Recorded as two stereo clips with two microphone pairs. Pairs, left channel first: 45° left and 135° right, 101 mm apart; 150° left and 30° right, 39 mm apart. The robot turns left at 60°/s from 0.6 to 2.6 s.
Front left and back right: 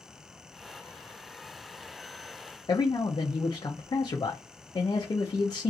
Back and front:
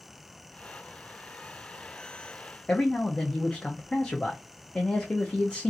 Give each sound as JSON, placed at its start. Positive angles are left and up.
{"t": 2.7, "sound": "a man speaking", "azimuth_deg": 95, "distance_m": 0.5}